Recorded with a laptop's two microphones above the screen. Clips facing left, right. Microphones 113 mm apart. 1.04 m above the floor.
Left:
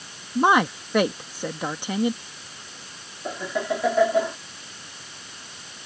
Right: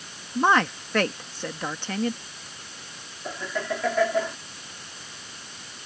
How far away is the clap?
No clap in this recording.